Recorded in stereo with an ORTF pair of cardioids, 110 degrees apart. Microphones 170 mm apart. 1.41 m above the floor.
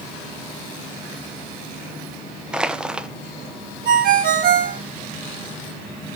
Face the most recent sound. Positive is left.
turn(degrees=-70)